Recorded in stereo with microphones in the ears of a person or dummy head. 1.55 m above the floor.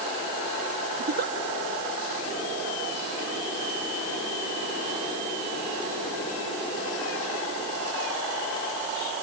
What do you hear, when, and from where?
1.0 s a giggle: 50° right (ahead or behind)